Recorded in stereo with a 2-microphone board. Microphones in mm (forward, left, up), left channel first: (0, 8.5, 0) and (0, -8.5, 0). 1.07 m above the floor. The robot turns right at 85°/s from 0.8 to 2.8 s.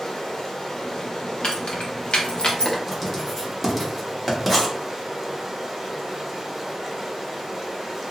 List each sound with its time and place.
0.0 s running water: 55° left, 0.8 m; by 8.1 s 135° right, 0.8 m
1.4 s keys jangling: 45° left (ahead or behind), 0.8 m; by 2.8 s 20° left (ahead or behind), 0.8 m
2.9 s writing: 5° right (ahead or behind), 0.8 m